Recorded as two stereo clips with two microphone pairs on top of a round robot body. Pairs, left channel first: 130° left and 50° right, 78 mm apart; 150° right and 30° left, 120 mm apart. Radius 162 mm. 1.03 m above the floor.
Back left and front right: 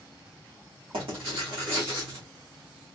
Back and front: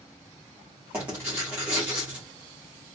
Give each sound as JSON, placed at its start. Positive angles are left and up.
{"t": 0.9, "sound": "writing", "azimuth_deg": -50, "distance_m": 1.9}